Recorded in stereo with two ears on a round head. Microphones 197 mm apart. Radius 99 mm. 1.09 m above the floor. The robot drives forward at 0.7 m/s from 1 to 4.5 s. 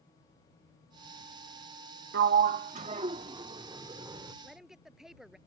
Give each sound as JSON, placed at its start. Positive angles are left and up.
{"t": 2.1, "sound": "a sliding door", "side_deg": -50}
{"t": 4.4, "sound": "a woman speaking", "side_deg": -5}